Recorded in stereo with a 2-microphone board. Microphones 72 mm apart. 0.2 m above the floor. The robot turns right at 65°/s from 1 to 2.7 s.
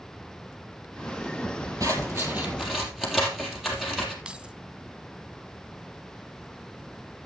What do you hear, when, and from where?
1.8 s scissors: 60° right (ahead or behind), 3.5 m; by 4.2 s 5° right (ahead or behind), 3.5 m
4.2 s keys jangling: 15° right (ahead or behind), 1.0 m